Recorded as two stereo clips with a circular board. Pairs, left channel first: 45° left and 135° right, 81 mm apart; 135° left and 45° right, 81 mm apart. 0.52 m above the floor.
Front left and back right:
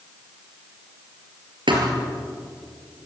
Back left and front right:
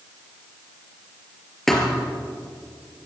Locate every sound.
1.7 s a thud: 135° right, 4 m